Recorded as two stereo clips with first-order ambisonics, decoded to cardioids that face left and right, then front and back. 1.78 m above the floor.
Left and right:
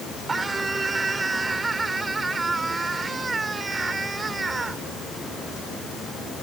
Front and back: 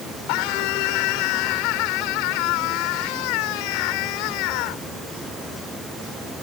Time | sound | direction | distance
0.3 | a scream | 10° right | ?